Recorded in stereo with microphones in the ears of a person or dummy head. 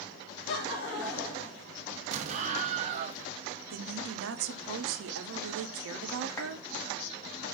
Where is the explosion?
35° right (ahead or behind), 0.5 m.